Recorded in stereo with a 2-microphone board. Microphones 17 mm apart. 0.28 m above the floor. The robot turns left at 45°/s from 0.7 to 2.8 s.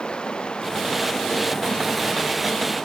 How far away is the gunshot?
I don't hear a gunshot.